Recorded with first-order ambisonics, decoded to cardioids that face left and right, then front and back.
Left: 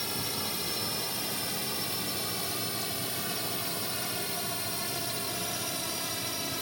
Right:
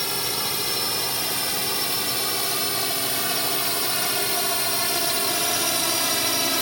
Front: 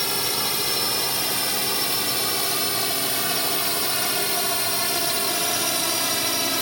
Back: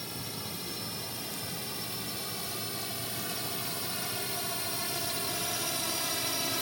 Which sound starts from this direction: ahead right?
A drone, at 0.0 s.